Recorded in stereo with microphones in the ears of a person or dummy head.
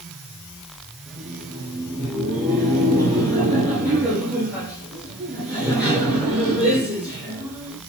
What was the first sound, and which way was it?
Laughter, 5° right (ahead or behind).